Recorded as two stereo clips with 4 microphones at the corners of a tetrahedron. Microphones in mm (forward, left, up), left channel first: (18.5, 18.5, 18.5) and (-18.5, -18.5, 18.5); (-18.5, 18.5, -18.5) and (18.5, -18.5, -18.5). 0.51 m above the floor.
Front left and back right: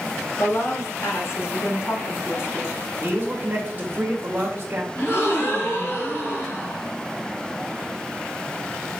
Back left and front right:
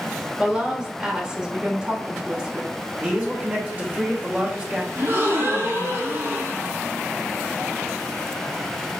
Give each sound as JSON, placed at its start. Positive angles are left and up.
{"t": 0.4, "sound": "a woman speaking", "azimuth_deg": 20, "distance_m": 1.6}
{"t": 3.0, "sound": "a man speaking", "azimuth_deg": -100, "distance_m": 1.5}
{"t": 5.0, "sound": "a gasp", "azimuth_deg": 0, "distance_m": 2.5}